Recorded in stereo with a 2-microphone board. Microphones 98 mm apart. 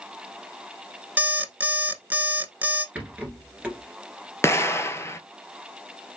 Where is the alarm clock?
20° right (ahead or behind), 0.6 m.